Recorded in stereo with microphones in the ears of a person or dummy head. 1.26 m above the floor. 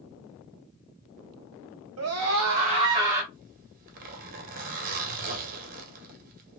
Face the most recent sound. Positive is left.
turn(degrees=-50)  # may be behind; listen again after turning